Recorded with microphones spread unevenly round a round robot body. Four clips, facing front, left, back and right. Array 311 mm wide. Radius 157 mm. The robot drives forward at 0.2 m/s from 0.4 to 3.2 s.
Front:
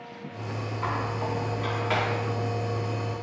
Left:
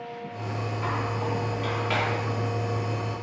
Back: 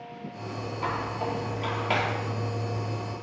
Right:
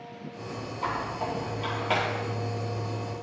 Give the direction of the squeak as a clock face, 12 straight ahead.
5 o'clock.